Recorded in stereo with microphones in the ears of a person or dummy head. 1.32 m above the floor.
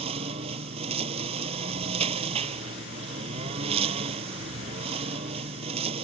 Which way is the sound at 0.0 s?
35° right (ahead or behind).